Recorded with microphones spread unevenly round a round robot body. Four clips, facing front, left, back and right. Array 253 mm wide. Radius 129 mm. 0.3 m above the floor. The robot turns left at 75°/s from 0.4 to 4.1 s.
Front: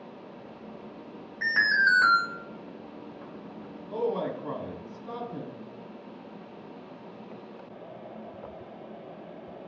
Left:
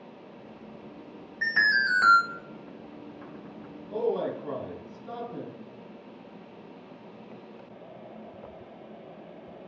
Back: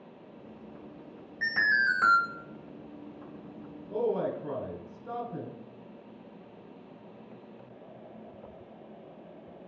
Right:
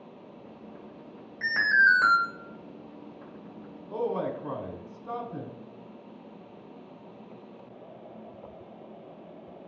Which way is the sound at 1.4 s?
20° right.